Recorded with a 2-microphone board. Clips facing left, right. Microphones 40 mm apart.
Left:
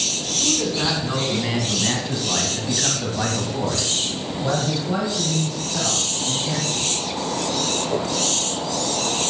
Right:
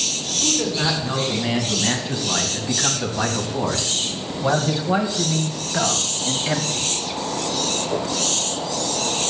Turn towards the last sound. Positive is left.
turn(degrees=-55)  # may be behind; listen again after turning